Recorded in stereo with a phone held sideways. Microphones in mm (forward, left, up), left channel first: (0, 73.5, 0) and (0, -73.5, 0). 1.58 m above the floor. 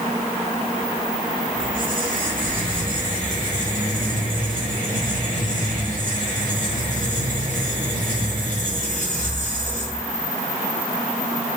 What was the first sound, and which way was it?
A squeak, 70° right (ahead or behind).